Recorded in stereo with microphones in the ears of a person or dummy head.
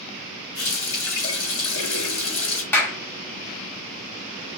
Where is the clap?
10° left (ahead or behind), 0.8 m.